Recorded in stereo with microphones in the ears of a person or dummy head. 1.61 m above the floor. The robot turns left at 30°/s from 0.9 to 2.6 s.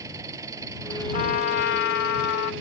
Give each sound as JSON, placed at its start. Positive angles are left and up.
{"t": 0.0, "sound": "an engine running", "azimuth_deg": -15}
{"t": 1.1, "sound": "a trumpet", "azimuth_deg": 135}